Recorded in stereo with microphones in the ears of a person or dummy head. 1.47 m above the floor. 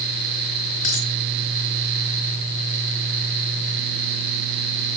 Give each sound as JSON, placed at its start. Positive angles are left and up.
{"t": 0.8, "sound": "a dropped coin", "side_deg": 35, "distance_m": 4.0}